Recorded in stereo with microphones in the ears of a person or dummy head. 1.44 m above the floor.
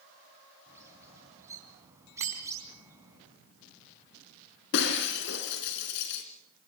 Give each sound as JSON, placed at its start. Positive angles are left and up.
{"t": 0.7, "sound": "a bird", "side_deg": -15, "distance_m": 3.5}
{"t": 2.2, "sound": "a bicycle bell", "side_deg": -80, "distance_m": 7.5}
{"t": 4.7, "sound": "breaking glass", "side_deg": 60, "distance_m": 3.0}